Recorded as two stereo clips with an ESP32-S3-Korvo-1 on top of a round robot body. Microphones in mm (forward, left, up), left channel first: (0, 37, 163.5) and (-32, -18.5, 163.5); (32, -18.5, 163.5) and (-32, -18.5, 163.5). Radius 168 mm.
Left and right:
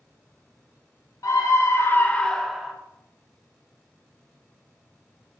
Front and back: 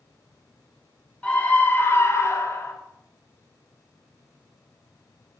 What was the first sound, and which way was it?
A scream, 70° left.